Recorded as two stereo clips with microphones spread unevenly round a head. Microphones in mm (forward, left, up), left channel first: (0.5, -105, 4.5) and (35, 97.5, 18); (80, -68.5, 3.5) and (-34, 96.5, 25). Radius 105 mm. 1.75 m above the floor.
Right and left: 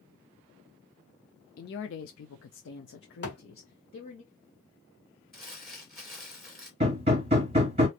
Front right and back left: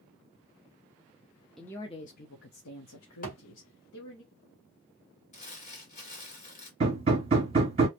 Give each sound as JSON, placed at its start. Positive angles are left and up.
{"t": 1.6, "sound": "a man speaking", "azimuth_deg": -145, "distance_m": 0.5}
{"t": 3.2, "sound": "a thud", "azimuth_deg": -95, "distance_m": 1.9}
{"t": 5.3, "sound": "crumpling", "azimuth_deg": -5, "distance_m": 1.9}
{"t": 6.8, "sound": "hammering", "azimuth_deg": 105, "distance_m": 1.3}